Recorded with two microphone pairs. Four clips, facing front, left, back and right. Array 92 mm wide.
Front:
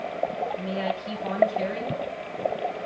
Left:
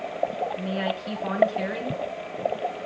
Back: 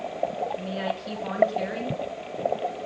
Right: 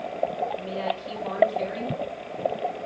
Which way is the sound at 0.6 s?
100° left.